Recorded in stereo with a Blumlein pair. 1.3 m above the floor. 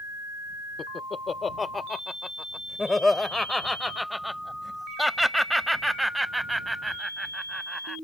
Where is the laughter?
20° left; by 8.0 s 5° right.